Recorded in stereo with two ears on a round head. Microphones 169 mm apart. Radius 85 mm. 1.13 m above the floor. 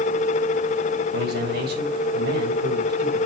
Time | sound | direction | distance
1.1 | a man speaking | 60° right (ahead or behind) | 5.5 m